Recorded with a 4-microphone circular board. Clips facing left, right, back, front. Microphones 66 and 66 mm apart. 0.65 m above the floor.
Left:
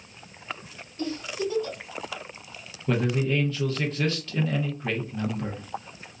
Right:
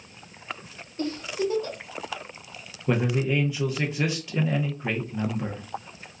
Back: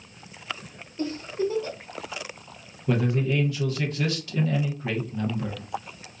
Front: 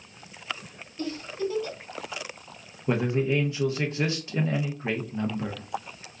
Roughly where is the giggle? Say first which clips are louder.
Right 2 dB, back 3 dB; behind right.